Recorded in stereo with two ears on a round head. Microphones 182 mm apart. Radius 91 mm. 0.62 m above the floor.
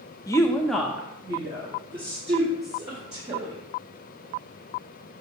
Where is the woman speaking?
20° left (ahead or behind), 0.6 m; by 3.5 s 30° right (ahead or behind), 1.9 m.